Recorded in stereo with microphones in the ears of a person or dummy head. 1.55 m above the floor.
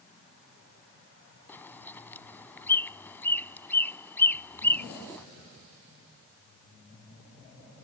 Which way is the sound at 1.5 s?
10° left (ahead or behind).